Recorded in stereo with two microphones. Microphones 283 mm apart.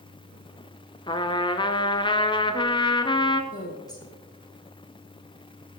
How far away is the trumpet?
About 0.7 m.